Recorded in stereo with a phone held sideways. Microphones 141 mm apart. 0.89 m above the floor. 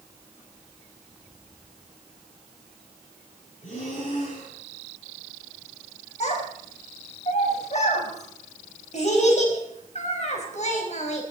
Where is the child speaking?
55° left (ahead or behind), 4 m.